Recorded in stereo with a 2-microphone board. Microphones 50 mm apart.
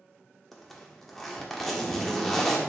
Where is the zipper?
5° left (ahead or behind), 1.4 m.